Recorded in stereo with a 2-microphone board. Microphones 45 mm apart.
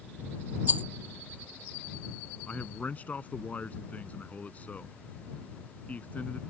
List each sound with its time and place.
0.7 s a rattle: 40° right (ahead or behind)
2.5 s a man speaking: 35° left (ahead or behind)